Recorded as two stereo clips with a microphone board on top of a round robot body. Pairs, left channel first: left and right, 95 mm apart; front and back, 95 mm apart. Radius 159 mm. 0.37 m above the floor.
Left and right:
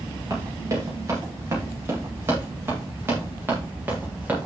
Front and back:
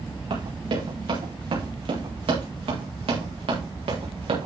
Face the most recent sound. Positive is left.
turn(degrees=-165)